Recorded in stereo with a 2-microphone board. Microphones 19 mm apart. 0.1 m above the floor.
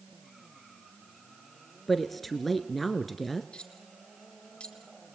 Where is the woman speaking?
5° left (ahead or behind), 1.2 m.